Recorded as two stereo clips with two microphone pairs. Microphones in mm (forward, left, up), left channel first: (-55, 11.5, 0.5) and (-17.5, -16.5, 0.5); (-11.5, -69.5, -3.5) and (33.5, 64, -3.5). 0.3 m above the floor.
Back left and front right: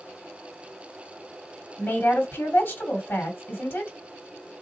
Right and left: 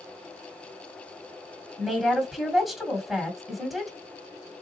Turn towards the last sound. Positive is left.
turn(degrees=160)